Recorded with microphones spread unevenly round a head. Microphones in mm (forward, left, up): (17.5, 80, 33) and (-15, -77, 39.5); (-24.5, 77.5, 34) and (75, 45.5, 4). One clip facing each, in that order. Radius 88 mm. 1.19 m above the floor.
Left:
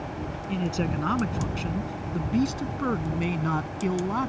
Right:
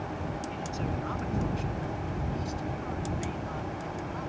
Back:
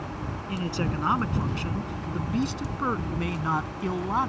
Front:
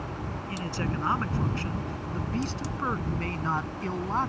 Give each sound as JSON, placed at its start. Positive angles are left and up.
{"t": 0.5, "sound": "a man speaking", "azimuth_deg": 100}